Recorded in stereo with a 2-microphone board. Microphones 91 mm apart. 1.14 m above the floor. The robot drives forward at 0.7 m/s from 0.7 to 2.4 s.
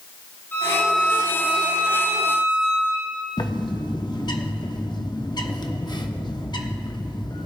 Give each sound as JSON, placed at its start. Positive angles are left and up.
{"t": 0.5, "sound": "a violin", "side_deg": 25, "distance_m": 4.5}
{"t": 3.4, "sound": "a bird", "side_deg": 55, "distance_m": 0.8}